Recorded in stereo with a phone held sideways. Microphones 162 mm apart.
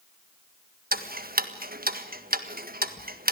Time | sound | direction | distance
0.9 | ticking | 75° right (ahead or behind) | 1.6 m